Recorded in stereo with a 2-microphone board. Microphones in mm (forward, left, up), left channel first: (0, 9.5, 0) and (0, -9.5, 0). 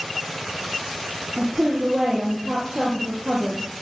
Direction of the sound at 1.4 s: 60° right (ahead or behind).